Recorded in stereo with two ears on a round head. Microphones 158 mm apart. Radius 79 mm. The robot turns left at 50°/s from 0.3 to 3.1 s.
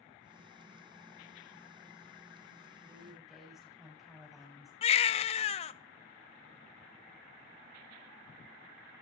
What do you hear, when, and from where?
2.8 s a woman speaking: 15° right (ahead or behind), 6.5 m; by 4.7 s centre (ahead or behind), 6.5 m
4.8 s a baby crying: 35° left (ahead or behind), 0.5 m